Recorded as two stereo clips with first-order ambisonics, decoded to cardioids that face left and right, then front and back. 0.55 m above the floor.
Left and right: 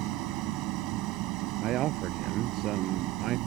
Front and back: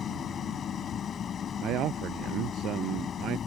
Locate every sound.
0.0 s an engine running: 65° right
1.6 s a man speaking: 135° right